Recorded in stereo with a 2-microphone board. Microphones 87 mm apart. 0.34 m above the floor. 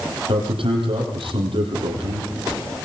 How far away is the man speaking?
About 10 m.